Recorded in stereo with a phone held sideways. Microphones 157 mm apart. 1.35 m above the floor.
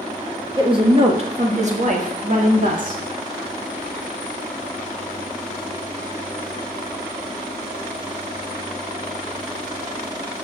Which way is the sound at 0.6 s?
30° right (ahead or behind).